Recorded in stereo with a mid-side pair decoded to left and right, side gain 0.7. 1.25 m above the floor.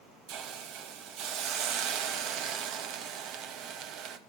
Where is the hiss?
55° right, 1.8 m.